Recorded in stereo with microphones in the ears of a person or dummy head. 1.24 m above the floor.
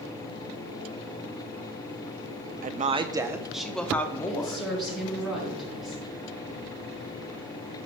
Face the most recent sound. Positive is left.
turn(degrees=-5)  # may be behind; listen again after turning